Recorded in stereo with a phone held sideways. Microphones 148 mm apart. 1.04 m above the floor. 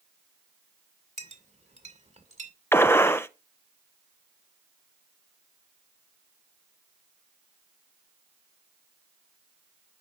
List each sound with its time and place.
1.2 s a clink: 50° right (ahead or behind), 2 m
2.7 s a gunshot: 15° left (ahead or behind), 0.8 m